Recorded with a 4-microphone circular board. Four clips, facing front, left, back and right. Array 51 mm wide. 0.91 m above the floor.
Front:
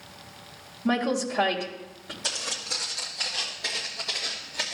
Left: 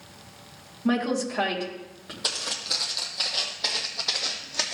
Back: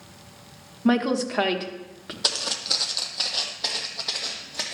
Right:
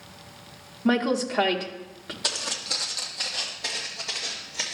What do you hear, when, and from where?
0.8 s a woman speaking: 155° right, 1.0 m
2.2 s footsteps: straight behind, 1.5 m; by 4.7 s 110° left, 1.9 m